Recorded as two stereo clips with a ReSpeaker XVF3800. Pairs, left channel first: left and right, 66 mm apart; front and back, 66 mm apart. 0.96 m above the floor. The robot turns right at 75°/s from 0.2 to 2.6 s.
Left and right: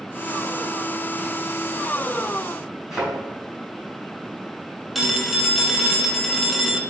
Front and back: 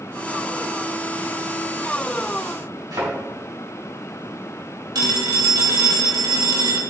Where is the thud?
175° right, 3.5 m.